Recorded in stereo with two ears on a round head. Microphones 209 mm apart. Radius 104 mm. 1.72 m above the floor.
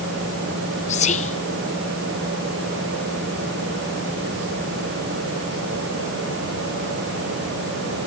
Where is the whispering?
30° left (ahead or behind), 0.8 m.